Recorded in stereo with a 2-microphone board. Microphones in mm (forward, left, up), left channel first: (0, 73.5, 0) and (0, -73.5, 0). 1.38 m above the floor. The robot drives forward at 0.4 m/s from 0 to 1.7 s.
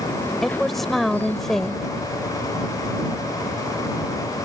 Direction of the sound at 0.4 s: Centre (ahead or behind).